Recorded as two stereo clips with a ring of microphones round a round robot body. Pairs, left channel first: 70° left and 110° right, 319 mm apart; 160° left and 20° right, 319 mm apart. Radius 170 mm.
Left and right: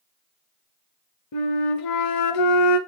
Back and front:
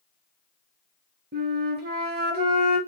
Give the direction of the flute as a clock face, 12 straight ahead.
11 o'clock.